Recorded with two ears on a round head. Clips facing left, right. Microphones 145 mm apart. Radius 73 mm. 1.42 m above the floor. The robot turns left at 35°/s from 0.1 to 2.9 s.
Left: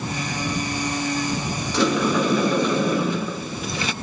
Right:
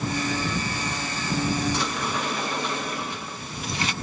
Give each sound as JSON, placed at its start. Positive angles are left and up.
{"t": 1.7, "sound": "a sliding door", "azimuth_deg": 110}